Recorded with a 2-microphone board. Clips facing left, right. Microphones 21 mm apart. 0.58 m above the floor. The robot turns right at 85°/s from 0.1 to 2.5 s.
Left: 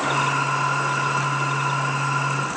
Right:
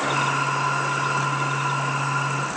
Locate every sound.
Only background noise.